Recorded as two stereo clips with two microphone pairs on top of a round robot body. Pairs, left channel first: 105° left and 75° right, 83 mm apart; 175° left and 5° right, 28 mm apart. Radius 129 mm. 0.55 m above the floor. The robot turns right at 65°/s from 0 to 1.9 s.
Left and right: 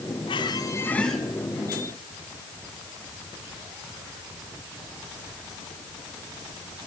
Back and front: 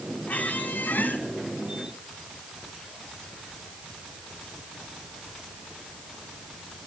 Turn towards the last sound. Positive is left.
turn(degrees=-120)